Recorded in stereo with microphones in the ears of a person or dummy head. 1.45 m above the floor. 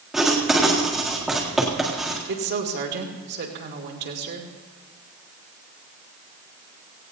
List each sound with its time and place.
0.1 s writing: 5° left (ahead or behind), 1.8 m
2.3 s a woman speaking: 50° right (ahead or behind), 2 m